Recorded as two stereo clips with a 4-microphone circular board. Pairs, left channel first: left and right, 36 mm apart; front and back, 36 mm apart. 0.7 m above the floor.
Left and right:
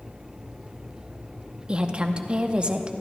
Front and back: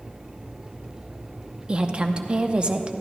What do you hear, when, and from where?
1.7 s a woman speaking: 135° right, 0.6 m